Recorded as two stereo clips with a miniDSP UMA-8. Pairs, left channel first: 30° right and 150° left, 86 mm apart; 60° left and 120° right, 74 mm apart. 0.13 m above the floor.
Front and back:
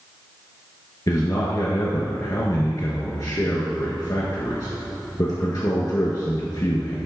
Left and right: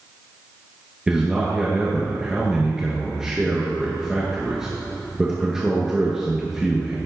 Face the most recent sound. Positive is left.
turn(degrees=-40)